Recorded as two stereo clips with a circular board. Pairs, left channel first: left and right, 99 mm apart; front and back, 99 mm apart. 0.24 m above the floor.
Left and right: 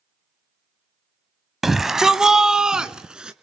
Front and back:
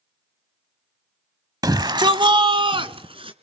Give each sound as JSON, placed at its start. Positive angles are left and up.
{"t": 1.6, "sound": "a shout", "azimuth_deg": -175, "distance_m": 1.1}